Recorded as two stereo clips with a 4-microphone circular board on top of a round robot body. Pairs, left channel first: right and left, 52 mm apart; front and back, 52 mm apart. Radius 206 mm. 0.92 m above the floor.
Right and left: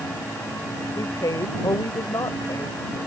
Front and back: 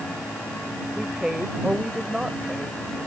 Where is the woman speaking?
100° right.